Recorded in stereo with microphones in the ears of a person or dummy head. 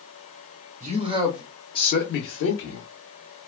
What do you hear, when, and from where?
0.8 s a man speaking: 40° right (ahead or behind), 0.7 m; by 2.9 s 70° left (ahead or behind), 1.0 m